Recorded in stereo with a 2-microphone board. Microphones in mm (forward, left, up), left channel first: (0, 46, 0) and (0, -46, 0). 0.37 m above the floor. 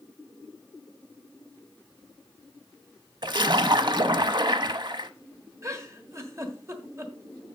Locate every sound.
3.2 s a splash: 55° right (ahead or behind), 0.7 m
5.6 s a giggle: 35° right (ahead or behind), 1.4 m